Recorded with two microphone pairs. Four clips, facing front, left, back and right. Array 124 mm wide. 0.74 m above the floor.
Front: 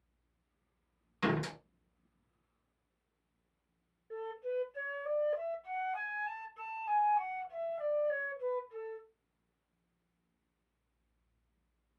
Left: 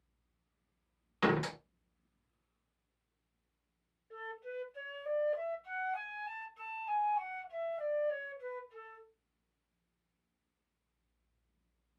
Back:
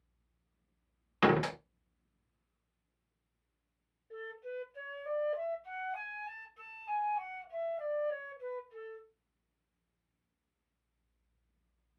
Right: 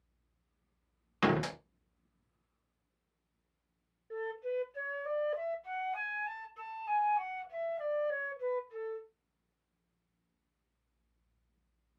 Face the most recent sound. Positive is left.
turn(degrees=-70)